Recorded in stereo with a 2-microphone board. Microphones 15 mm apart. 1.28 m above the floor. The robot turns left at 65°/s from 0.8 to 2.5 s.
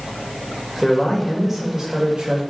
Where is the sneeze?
I don't hear a sneeze.